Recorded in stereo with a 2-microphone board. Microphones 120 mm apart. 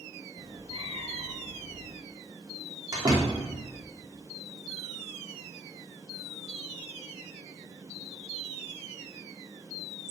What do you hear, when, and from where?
0.4 s a cat meowing: 45° right (ahead or behind), 1.8 m; by 1.9 s 55° right (ahead or behind), 1.6 m
2.9 s a door slam: 30° right (ahead or behind), 2.5 m